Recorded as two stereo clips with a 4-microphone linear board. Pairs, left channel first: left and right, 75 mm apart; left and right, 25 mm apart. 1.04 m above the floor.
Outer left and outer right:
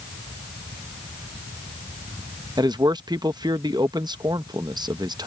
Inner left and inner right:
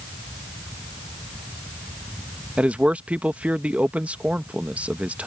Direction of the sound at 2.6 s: 70° right (ahead or behind).